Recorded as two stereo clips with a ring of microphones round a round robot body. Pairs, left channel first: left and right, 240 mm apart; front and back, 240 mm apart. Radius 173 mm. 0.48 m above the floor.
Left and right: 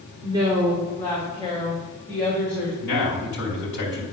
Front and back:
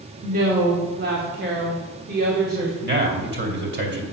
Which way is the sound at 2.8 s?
140° left.